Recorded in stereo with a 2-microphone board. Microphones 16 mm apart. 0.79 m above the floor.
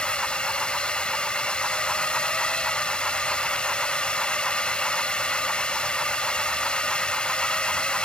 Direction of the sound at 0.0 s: 70° left (ahead or behind).